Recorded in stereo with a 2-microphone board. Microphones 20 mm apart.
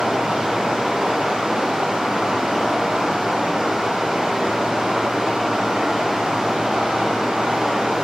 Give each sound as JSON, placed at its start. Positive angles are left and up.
{"t": 0.0, "sound": "running water", "side_deg": -85, "distance_m": 2.0}